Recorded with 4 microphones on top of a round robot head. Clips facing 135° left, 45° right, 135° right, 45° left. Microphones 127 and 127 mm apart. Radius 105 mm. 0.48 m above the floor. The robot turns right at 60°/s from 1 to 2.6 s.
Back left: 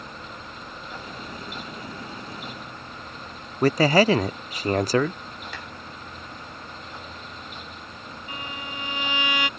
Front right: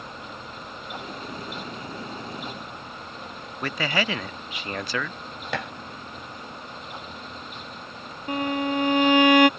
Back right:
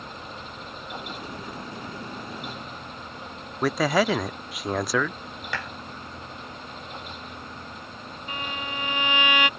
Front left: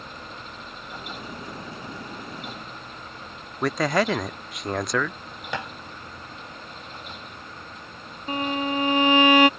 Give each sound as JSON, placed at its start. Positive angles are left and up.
{"t": 3.6, "sound": "a man speaking", "azimuth_deg": 140}
{"t": 5.5, "sound": "dishes clattering", "azimuth_deg": -25}
{"t": 8.3, "sound": "a violin", "azimuth_deg": -5}